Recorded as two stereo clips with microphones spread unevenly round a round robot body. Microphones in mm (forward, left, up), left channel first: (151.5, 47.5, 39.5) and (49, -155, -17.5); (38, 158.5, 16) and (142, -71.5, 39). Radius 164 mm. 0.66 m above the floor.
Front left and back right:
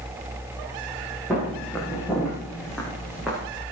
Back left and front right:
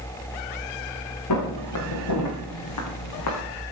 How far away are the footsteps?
About 5.5 m.